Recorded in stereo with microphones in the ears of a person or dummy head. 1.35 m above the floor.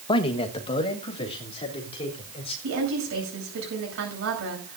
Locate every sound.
0.1 s a man speaking: 25° left (ahead or behind), 1.0 m; by 2.5 s 30° left (ahead or behind), 4.5 m
2.6 s a woman speaking: 80° right, 8.5 m